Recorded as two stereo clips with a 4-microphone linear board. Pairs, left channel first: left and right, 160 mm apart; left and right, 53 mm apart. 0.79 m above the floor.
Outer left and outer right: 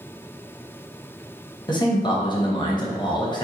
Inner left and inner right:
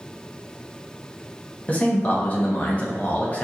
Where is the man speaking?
30° left (ahead or behind), 0.7 m.